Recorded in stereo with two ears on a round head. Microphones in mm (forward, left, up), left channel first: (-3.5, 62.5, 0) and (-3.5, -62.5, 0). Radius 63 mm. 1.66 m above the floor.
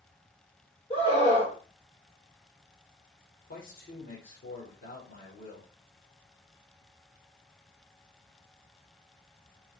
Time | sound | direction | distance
0.9 | a scream | 45° left (ahead or behind) | 7.5 m
3.5 | a man speaking | 60° left (ahead or behind) | 4.5 m